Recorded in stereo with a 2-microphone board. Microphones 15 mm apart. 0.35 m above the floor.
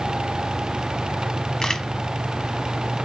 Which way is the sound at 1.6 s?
45° left (ahead or behind).